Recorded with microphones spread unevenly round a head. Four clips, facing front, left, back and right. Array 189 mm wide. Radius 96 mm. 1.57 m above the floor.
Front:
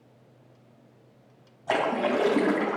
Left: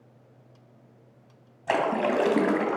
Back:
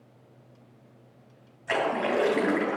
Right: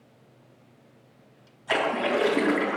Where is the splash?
60° left, 2.5 m.